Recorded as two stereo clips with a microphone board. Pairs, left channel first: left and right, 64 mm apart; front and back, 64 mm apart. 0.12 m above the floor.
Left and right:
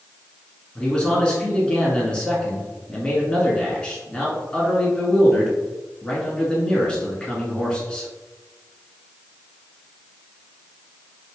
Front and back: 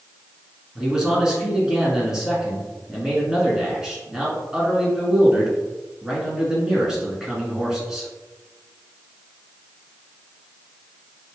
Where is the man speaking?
125° left, 1.2 m.